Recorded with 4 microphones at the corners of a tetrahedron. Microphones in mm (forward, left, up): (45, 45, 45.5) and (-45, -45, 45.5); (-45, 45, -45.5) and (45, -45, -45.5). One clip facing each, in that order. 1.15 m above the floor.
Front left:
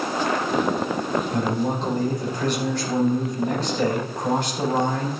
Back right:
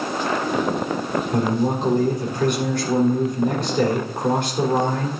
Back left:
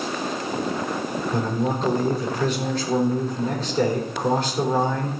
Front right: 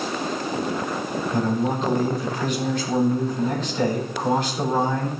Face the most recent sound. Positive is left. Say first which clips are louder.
# back right 3 dB, front right 2 dB
turn(degrees=-170)